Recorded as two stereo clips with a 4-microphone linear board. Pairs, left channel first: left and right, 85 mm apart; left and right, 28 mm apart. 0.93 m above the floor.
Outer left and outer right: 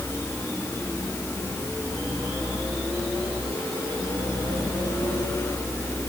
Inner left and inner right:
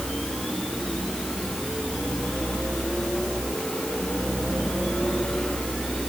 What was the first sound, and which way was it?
Only background noise.